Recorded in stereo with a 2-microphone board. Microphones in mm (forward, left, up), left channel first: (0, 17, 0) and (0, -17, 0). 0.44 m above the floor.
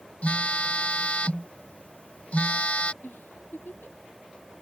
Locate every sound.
0.2 s a phone buzzing: 45° left (ahead or behind)
3.0 s a giggle: 80° left